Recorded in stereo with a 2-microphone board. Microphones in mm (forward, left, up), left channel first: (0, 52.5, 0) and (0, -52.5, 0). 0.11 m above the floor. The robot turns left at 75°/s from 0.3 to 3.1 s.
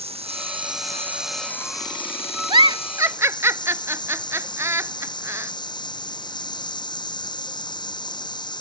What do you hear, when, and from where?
0.0 s running water: 105° right; by 8.6 s 45° left
2.5 s a giggle: 55° right (ahead or behind); by 5.5 s 30° right (ahead or behind)